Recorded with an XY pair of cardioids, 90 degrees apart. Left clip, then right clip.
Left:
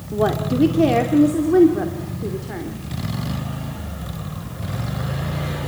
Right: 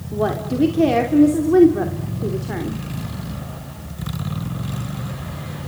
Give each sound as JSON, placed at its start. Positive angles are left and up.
{"t": 0.1, "sound": "a woman speaking", "azimuth_deg": 15, "distance_m": 2.5}